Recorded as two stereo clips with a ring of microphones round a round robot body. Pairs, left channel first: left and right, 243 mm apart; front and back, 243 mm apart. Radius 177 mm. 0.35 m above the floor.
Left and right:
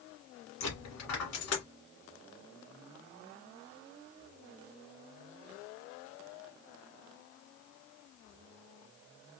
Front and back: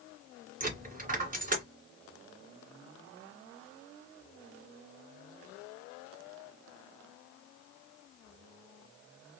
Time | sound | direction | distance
0.6 | a dropped coin | 125° left | 2.5 m